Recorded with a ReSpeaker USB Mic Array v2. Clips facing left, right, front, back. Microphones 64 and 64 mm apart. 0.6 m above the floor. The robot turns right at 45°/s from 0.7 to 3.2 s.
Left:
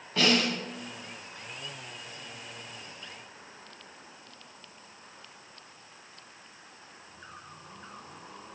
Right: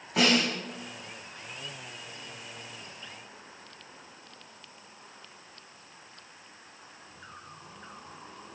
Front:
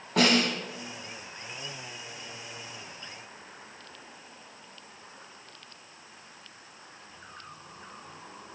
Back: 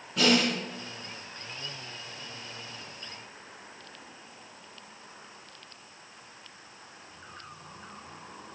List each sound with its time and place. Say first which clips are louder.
0.2 s a snare drum: right 1 dB, front 1 dB; 15° right, 5.5 m